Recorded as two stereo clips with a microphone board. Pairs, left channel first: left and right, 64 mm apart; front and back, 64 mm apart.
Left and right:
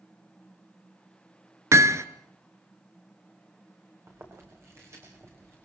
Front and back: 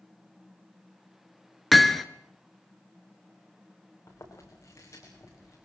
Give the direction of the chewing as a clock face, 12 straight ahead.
1 o'clock.